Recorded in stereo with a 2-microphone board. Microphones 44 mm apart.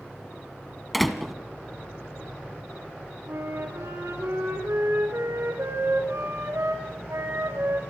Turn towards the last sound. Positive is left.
turn(degrees=-75)  # may be behind; listen again after turning